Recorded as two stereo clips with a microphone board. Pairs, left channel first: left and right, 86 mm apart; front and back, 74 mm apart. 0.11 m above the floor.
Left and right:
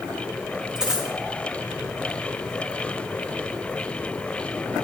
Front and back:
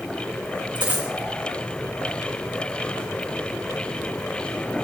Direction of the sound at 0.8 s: 175° right.